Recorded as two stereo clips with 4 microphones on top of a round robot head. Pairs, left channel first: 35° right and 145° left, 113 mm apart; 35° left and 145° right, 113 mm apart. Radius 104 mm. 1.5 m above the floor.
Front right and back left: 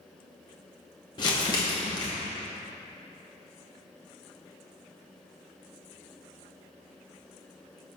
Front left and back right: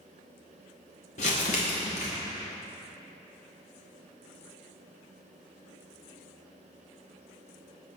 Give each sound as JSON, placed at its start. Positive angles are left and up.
{"t": 1.2, "sound": "crumpling", "azimuth_deg": 15, "distance_m": 0.9}